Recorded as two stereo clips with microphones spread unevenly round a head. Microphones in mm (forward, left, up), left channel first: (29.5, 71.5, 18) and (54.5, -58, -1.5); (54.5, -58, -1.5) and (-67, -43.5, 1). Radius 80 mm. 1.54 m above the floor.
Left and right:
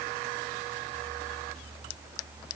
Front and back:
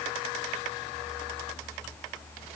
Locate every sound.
Only background noise.